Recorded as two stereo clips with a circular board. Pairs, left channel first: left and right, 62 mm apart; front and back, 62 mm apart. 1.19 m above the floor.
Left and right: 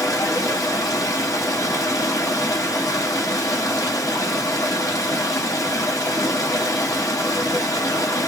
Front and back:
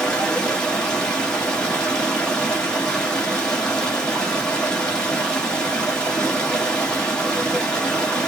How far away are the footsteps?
No footsteps in this recording.